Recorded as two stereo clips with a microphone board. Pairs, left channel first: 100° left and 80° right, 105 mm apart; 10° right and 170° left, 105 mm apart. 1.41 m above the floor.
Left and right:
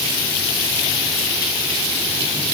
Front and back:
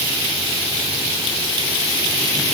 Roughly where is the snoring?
I don't hear snoring.